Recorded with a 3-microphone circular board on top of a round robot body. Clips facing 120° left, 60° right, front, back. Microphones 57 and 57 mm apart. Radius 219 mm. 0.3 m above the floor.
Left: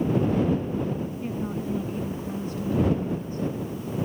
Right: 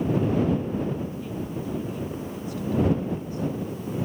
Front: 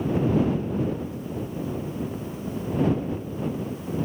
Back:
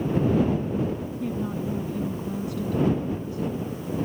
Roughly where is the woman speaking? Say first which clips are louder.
Left 2 dB, back 3 dB; behind.